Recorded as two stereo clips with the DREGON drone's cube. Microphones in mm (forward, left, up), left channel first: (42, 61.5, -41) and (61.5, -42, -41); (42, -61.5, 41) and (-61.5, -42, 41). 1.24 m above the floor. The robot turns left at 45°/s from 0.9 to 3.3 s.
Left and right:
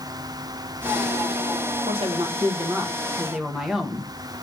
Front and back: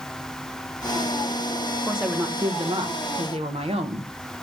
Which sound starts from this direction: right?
A woman speaking, at 1.9 s.